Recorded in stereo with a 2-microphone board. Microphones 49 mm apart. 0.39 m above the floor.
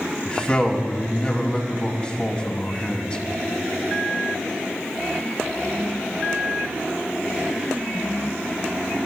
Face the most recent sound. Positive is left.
turn(degrees=25)  # may be behind; listen again after turning